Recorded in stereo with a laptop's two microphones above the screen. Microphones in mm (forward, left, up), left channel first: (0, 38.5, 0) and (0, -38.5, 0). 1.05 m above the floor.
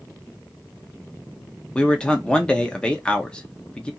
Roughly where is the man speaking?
Centre.